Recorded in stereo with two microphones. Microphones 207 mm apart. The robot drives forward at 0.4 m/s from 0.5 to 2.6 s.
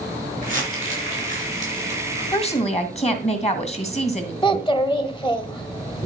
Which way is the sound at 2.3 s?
30° left (ahead or behind).